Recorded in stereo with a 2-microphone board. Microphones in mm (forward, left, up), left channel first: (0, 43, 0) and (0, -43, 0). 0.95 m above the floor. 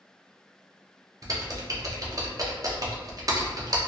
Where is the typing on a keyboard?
40° right (ahead or behind), 0.5 m.